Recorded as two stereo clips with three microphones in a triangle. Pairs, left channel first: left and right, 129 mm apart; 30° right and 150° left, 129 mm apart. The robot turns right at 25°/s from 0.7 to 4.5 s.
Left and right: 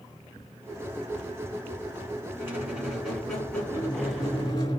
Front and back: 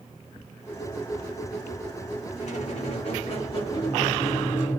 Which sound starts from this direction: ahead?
A squeak, at 2.4 s.